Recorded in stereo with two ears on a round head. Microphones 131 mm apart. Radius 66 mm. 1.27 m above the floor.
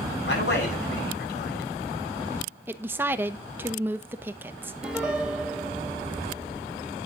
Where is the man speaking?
85° left, 9 m.